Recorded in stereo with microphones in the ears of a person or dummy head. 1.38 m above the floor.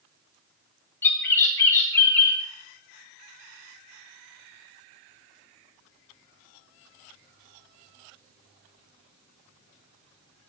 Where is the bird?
15° left (ahead or behind), 1.2 m.